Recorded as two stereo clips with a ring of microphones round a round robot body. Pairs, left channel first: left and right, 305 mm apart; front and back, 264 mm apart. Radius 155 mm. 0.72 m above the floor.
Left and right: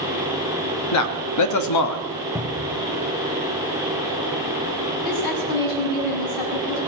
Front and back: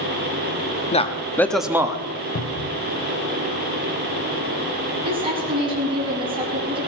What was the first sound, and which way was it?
A man speaking, 65° left.